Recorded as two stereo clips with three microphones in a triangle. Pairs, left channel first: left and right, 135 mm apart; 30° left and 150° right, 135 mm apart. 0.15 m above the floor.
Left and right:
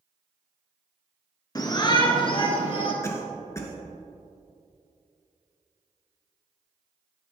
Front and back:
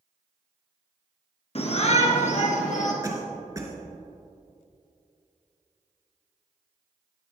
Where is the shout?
40° left, 1.6 m; by 2.9 s 45° left, 3 m.